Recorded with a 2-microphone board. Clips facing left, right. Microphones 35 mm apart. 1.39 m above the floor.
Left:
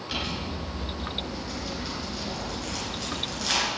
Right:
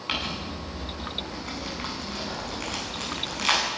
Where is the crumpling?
65° right (ahead or behind), 9.5 m.